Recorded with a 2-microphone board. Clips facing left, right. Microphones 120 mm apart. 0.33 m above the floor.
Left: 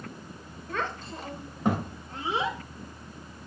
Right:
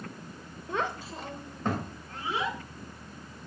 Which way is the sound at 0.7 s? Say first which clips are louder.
Right 1 dB; 20° right (ahead or behind).